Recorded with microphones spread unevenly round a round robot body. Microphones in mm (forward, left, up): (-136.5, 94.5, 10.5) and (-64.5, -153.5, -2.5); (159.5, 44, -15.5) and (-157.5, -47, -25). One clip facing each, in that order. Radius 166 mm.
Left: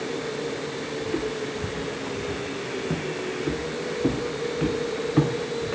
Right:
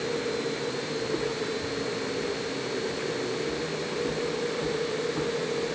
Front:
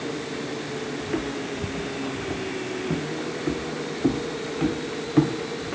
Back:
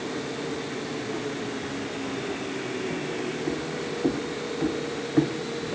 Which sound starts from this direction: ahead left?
Footsteps, at 1.0 s.